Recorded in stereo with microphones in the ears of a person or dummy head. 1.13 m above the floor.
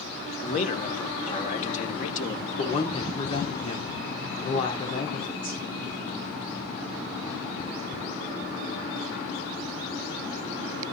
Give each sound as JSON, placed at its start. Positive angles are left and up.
{"t": 0.4, "sound": "a man speaking", "side_deg": 50, "distance_m": 1.9}
{"t": 2.6, "sound": "a woman speaking", "side_deg": 30, "distance_m": 4.0}